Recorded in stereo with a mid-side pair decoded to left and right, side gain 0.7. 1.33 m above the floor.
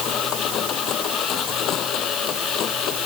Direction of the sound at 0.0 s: 45° left.